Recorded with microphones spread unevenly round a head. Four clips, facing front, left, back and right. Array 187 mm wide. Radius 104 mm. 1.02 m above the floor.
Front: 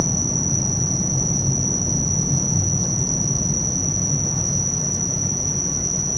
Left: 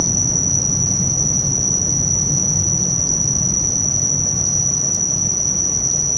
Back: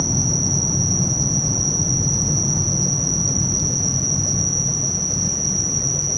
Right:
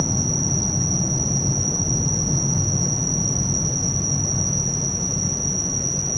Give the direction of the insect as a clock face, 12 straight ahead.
8 o'clock.